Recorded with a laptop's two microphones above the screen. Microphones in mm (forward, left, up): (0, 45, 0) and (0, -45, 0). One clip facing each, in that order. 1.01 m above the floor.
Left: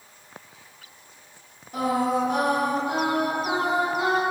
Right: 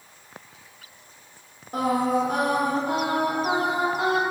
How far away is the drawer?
No drawer in this recording.